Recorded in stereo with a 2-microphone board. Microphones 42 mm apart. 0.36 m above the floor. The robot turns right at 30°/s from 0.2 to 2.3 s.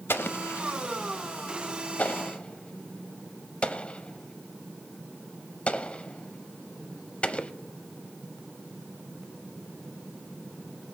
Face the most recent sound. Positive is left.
turn(degrees=30)  # may be behind; listen again after turning